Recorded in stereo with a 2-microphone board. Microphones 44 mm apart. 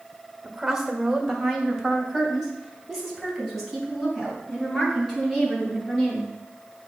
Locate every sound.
0.4 s a woman speaking: 10° right (ahead or behind), 1.2 m; by 6.3 s centre (ahead or behind), 5.5 m